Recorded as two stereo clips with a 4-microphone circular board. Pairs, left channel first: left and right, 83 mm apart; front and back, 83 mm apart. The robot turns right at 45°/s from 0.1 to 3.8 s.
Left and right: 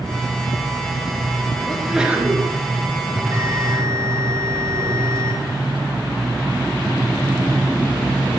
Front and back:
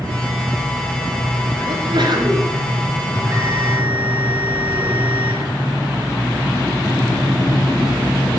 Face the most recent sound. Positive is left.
turn(degrees=-115)